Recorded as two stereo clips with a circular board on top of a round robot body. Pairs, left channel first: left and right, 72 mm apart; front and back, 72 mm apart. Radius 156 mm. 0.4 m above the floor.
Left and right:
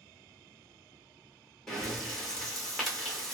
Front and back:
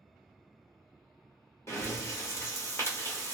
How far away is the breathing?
About 1.7 m.